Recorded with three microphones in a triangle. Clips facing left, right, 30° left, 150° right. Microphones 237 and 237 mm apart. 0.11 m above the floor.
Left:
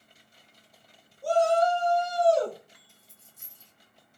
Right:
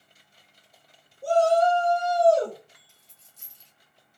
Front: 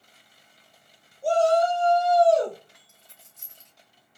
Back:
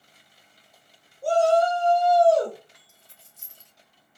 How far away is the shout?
About 3.5 m.